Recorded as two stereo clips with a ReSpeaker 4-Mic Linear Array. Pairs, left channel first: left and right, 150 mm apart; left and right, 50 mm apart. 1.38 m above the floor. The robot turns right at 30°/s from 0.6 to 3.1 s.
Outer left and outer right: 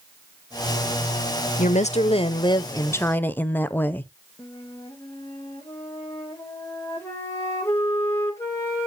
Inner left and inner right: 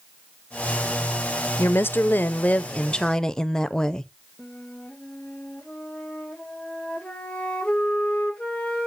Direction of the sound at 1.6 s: 120° left.